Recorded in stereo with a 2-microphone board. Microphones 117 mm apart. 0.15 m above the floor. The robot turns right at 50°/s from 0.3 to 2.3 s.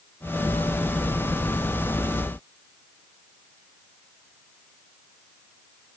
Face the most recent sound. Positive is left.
No sound to turn to.